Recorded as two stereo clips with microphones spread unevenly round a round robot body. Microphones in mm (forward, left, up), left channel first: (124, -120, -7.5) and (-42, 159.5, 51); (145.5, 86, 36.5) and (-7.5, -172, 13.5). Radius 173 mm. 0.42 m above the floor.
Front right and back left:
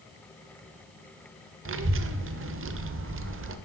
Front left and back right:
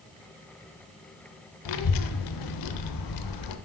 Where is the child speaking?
65° left, 0.7 m.